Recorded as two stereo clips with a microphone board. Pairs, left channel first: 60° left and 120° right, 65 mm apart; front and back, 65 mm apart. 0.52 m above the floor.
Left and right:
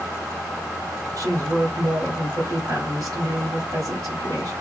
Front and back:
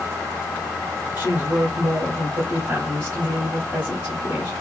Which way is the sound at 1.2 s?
125° right.